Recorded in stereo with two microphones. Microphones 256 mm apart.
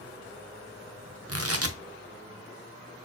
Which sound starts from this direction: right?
Tearing paper, at 1.3 s.